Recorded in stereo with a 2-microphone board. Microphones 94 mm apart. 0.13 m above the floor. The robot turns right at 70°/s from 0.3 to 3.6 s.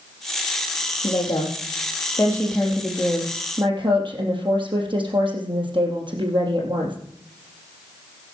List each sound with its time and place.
1.0 s a woman speaking: 65° left, 3.5 m; by 7.0 s 115° right, 3.5 m